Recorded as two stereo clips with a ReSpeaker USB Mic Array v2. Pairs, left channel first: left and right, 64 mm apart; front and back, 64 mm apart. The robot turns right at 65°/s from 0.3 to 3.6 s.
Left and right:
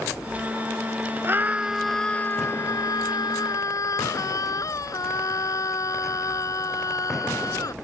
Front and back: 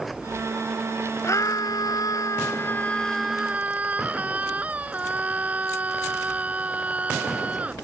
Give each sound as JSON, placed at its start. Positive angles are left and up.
{"t": 1.2, "sound": "a scream", "azimuth_deg": -40}